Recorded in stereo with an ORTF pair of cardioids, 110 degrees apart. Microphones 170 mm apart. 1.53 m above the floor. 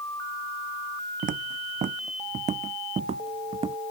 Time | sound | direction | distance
1.2 | footsteps | 55° right | ?